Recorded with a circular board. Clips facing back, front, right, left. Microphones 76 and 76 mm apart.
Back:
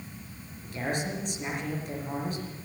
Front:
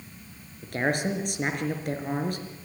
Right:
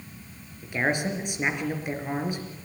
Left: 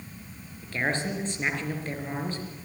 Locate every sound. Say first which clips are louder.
0.6 s a man speaking: front 5 dB, right 3 dB; 15° right, 4 m